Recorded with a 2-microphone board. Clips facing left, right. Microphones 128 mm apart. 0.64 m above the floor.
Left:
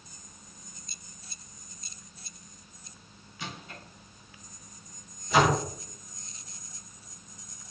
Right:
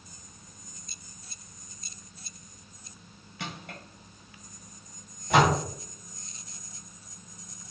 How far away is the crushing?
About 2.5 m.